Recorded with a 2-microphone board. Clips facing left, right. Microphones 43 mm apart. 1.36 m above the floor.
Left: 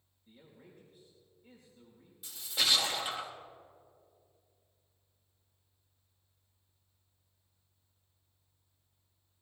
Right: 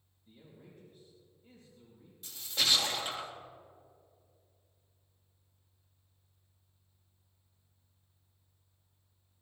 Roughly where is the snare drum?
No snare drum in this recording.